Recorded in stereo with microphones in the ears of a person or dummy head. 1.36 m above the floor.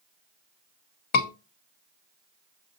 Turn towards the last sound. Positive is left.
turn(degrees=60)  # may be behind; listen again after turning